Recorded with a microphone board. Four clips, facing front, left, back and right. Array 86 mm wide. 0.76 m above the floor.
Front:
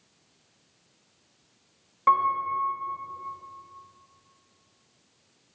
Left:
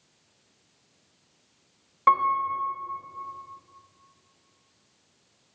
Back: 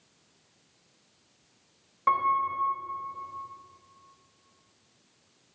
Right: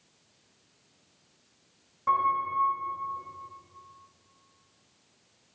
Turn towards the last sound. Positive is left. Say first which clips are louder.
# left 4 dB, front 2 dB
turn(degrees=75)